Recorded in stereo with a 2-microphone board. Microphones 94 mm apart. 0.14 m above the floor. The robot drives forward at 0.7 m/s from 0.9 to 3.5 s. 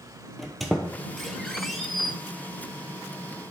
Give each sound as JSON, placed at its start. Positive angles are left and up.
{"t": 0.4, "sound": "a squeak", "side_deg": 0, "distance_m": 1.3}